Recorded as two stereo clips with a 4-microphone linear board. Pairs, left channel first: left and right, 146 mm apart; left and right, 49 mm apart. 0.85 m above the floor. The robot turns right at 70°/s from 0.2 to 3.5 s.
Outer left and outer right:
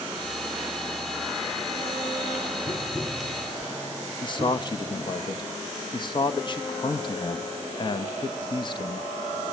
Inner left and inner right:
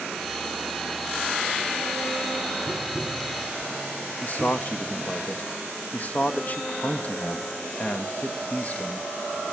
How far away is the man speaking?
About 0.8 m.